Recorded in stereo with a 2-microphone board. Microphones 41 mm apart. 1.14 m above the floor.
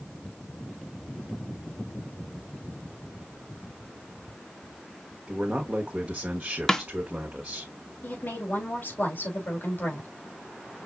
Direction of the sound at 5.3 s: 40° right (ahead or behind).